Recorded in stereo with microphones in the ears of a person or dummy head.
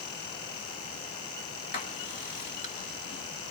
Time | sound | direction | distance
1.7 | writing | 45° left (ahead or behind) | 1.8 m